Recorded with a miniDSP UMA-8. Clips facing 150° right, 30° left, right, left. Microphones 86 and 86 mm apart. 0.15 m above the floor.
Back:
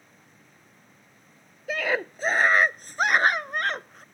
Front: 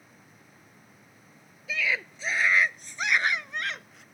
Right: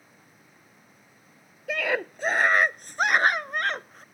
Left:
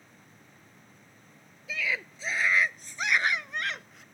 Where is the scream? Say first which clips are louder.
Back 4 dB, right 6 dB; 110° right; by 4.0 s 120° right.